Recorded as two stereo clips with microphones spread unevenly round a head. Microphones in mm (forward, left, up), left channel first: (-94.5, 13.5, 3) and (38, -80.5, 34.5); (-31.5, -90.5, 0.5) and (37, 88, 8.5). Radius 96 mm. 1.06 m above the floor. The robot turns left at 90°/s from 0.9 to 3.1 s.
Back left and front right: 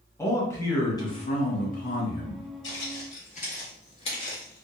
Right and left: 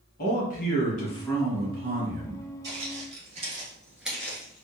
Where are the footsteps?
135° left, 1.7 m; by 4.7 s 135° right, 1.1 m.